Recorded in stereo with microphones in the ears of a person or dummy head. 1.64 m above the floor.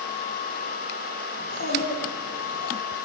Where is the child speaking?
55° left (ahead or behind), 3.5 m; by 2.7 s 50° left (ahead or behind), 4 m.